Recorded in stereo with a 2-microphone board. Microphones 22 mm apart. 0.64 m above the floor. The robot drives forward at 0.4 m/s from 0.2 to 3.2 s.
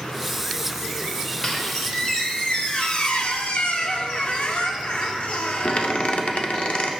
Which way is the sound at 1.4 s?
30° left (ahead or behind).